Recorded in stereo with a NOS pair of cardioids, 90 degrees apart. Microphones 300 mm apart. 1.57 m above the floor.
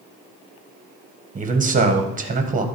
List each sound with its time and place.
1.4 s a man speaking: 25° right, 1.5 m